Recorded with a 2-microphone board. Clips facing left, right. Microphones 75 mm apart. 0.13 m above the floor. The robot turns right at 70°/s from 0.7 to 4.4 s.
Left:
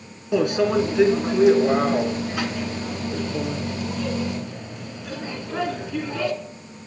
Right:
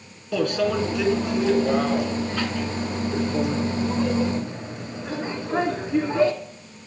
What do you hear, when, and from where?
0.3 s a microwave: 40° left, 1.1 m; by 6.3 s 65° right, 1.1 m